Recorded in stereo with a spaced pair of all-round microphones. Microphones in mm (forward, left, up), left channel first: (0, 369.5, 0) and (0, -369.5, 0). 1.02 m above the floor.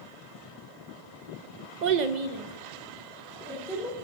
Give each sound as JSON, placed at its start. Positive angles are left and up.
{"t": 1.8, "sound": "a child speaking", "side_deg": -75, "distance_m": 0.8}